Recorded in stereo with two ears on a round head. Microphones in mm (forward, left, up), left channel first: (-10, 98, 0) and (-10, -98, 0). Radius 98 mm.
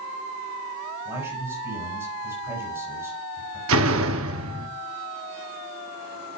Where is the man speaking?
10° right (ahead or behind), 6.5 m.